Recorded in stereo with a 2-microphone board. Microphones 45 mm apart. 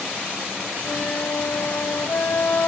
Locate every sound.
0.8 s a flute: 45° left (ahead or behind), 0.8 m